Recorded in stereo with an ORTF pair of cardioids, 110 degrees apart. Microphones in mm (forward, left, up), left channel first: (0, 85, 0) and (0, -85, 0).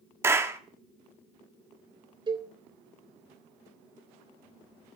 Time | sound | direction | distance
0.2 | a clap | 15° right | 1.7 m
2.3 | a cowbell | 30° right | 2.5 m